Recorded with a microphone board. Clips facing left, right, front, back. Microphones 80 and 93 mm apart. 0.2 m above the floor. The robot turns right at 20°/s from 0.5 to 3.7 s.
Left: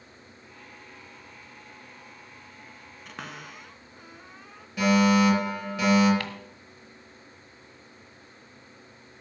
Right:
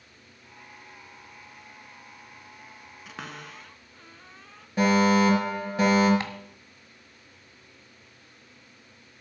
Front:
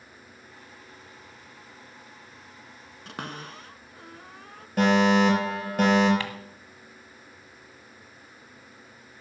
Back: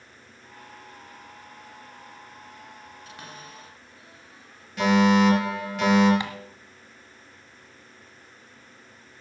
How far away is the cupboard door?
About 0.8 m.